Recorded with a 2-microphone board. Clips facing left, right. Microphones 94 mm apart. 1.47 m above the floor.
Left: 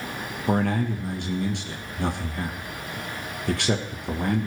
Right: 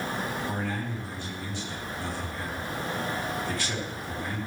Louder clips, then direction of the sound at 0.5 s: Left 8 dB; 70° left (ahead or behind).